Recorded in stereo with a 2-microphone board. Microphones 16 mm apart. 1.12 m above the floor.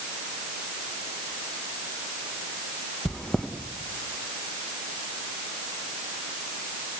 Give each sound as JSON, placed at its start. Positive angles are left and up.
{"t": 3.0, "sound": "chewing", "side_deg": 55, "distance_m": 1.4}